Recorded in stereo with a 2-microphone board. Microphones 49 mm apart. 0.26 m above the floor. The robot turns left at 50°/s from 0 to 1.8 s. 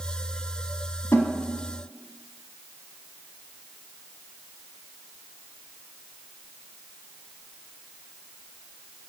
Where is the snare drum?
65° left (ahead or behind), 0.7 m; by 1.3 s 60° left (ahead or behind), 0.7 m.